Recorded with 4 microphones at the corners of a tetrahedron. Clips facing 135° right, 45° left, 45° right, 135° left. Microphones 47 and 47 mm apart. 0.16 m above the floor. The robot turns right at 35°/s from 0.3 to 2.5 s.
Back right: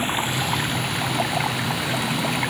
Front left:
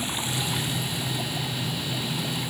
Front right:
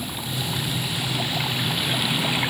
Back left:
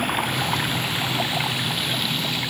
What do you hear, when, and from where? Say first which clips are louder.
0.0 s running water: back right 6 dB, back left 7 dB; 170° left; by 2.5 s 110° right